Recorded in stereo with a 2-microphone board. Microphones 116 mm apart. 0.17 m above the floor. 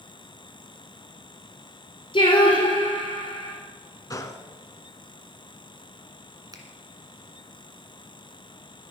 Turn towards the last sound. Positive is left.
turn(degrees=-35)  # may be behind; listen again after turning